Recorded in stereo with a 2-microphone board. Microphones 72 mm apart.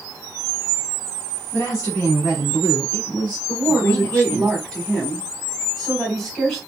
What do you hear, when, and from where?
1.5 s a woman speaking: 35° left (ahead or behind), 1.7 m; by 4.5 s 20° left (ahead or behind), 1.4 m
3.5 s a woman speaking: 5° left (ahead or behind), 1.3 m